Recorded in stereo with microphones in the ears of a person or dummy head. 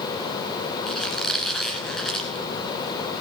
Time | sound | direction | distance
0.9 | a squeak | 5° left (ahead or behind) | 1.7 m